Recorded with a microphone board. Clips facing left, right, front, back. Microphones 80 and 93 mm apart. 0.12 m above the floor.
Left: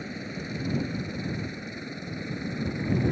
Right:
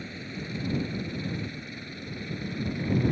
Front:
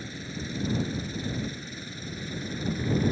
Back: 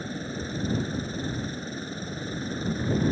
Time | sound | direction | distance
0.0 | a helicopter | 150° left | ?